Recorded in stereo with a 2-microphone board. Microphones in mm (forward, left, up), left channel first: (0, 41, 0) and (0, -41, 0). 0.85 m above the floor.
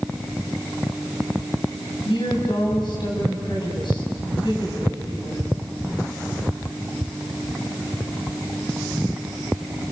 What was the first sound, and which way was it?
A woman speaking, 70° left (ahead or behind).